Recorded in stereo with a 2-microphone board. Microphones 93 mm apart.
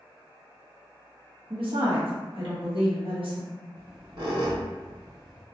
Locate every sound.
1.5 s a woman speaking: 70° right (ahead or behind), 0.9 m
3.8 s a squeak: 50° right (ahead or behind), 1.2 m